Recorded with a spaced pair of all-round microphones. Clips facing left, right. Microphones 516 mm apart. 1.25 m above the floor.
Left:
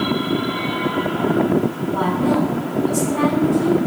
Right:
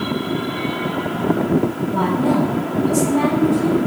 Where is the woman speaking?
60° right (ahead or behind), 8 m.